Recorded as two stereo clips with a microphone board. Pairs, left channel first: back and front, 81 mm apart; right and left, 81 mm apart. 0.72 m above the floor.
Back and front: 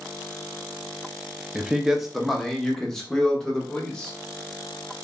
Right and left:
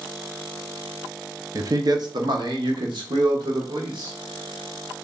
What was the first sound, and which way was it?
A man speaking, 75° left.